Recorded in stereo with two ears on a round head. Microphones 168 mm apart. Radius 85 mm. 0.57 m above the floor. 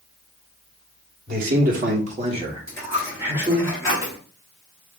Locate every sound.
1.3 s a man speaking: 50° right (ahead or behind), 1.3 m; by 3.7 s 5° right (ahead or behind), 2 m
2.7 s a dropped coin: 15° left (ahead or behind), 2.5 m